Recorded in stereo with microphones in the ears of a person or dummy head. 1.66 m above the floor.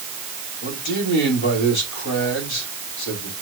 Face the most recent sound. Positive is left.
turn(degrees=65)  # may be behind; listen again after turning